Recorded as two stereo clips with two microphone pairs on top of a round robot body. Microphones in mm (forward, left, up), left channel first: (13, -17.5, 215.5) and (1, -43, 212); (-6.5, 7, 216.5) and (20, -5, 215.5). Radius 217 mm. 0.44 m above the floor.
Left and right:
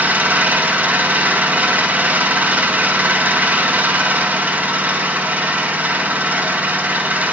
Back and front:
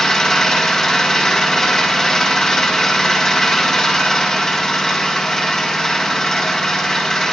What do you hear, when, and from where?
0.0 s an engine running: 130° right, 4 m